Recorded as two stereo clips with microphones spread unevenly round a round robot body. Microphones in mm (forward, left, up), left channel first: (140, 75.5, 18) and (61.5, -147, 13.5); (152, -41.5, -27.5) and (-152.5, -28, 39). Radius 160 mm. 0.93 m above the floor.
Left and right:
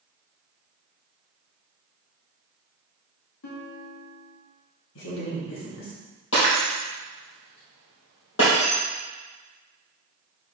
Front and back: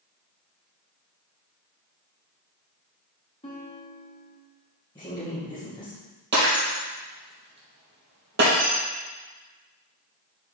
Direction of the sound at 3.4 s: 70° left.